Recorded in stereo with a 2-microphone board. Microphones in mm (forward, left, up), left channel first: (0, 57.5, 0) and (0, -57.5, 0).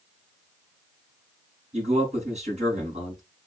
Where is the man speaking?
75° right (ahead or behind), 3.5 m.